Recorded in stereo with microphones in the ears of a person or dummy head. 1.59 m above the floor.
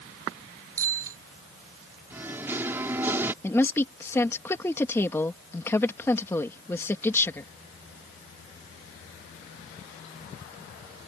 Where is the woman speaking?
10° left (ahead or behind).